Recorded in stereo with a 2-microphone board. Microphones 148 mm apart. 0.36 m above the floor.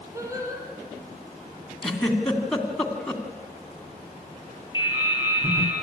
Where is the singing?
20° right (ahead or behind), 5 m.